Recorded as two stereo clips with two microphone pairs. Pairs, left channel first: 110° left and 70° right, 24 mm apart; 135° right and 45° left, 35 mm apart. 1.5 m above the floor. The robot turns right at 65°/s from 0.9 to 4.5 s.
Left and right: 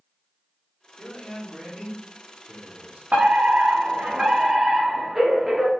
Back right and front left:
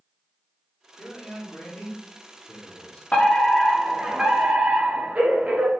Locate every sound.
1.0 s a man speaking: 160° left, 4 m; by 3.0 s 65° right, 4 m
3.1 s a fire alarm: 85° right, 3.5 m; by 5.7 s 5° left, 3.5 m